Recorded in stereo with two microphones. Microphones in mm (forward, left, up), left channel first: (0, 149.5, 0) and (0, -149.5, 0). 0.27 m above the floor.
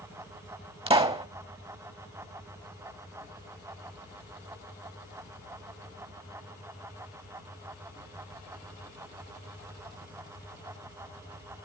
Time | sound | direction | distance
0.9 | a pop | 20° right (ahead or behind) | 1.0 m